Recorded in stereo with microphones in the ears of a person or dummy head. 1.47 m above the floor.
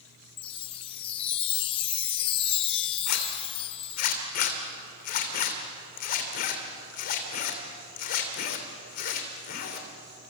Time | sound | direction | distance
0.4 | a chime | 35° left (ahead or behind) | 0.7 m
3.1 | a zipper | 55° left (ahead or behind) | 2.5 m